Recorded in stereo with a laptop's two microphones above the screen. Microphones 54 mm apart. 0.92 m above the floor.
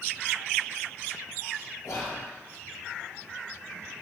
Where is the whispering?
75° left (ahead or behind), 1.2 m.